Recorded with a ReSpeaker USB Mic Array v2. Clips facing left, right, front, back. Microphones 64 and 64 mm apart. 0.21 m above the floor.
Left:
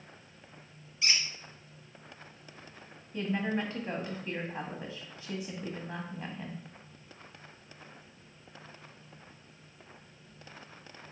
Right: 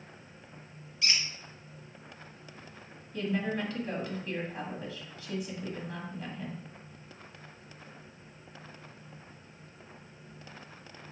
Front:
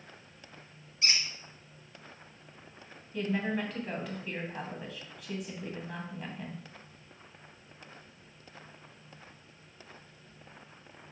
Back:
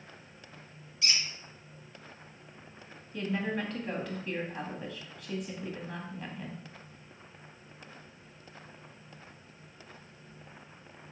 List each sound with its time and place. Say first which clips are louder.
1.0 s a squeak: even, front 1 dB; 30° left, 1.0 m
3.1 s a woman speaking: even, front 1 dB; 85° left, 1.1 m